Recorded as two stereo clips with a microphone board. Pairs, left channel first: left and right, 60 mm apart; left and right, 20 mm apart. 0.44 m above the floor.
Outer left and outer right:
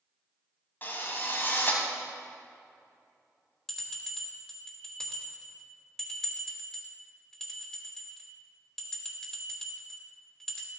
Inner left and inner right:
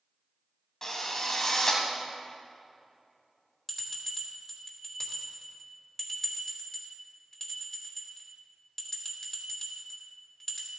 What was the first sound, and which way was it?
A drill, 35° left (ahead or behind).